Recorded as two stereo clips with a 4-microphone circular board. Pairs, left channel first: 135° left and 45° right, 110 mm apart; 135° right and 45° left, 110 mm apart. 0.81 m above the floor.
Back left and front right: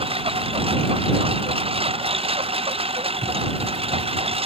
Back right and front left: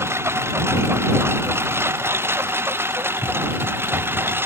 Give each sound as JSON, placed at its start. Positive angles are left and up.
{"t": 0.0, "sound": "a lawn mower", "azimuth_deg": -20}